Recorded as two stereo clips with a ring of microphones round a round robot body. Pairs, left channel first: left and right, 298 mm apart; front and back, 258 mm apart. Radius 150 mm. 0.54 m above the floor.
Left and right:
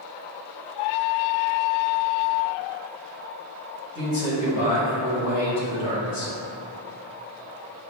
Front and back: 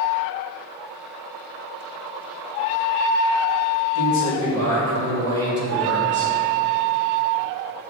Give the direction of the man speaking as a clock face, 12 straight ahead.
10 o'clock.